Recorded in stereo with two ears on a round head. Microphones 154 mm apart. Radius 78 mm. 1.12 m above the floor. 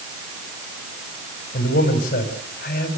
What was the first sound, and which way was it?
A man speaking, 55° left (ahead or behind).